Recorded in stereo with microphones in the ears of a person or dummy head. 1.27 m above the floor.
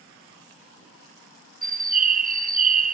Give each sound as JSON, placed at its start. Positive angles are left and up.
{"t": 1.6, "sound": "a bird", "side_deg": -40, "distance_m": 0.6}